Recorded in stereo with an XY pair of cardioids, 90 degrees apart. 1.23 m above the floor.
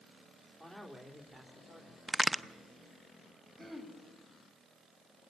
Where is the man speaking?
20° right, 3 m; by 2.0 s 30° right, 4 m.